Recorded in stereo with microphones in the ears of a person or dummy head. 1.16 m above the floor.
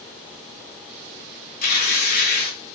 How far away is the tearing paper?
About 1.7 m.